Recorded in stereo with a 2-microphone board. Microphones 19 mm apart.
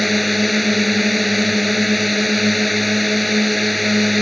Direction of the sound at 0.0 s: 5° left (ahead or behind).